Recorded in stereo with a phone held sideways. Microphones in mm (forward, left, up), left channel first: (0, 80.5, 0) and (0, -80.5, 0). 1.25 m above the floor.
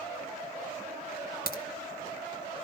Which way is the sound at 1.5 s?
70° left (ahead or behind).